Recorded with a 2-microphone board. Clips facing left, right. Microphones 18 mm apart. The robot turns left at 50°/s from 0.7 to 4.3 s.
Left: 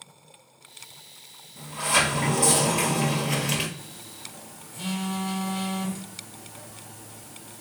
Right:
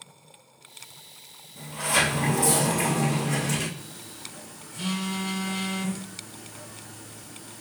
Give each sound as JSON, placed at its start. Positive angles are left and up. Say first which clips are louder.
{"t": 1.6, "sound": "a sliding door", "louder": "left 1 dB", "azimuth_deg": -165, "distance_m": 1.2}
{"t": 3.8, "sound": "a phone buzzing", "louder": "right 1 dB", "side_deg": -15, "distance_m": 1.5}